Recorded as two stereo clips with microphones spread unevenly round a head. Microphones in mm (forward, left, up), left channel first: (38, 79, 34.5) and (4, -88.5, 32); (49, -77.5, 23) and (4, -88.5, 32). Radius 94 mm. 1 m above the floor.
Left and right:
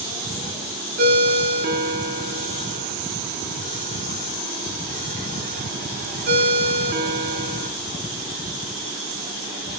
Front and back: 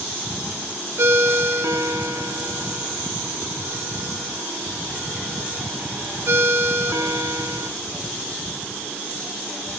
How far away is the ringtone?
About 1.2 m.